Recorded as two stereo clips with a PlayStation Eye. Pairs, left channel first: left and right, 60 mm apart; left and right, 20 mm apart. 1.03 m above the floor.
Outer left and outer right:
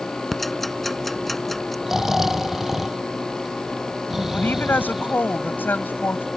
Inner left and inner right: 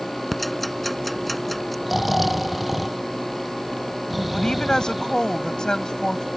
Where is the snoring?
5° right (ahead or behind).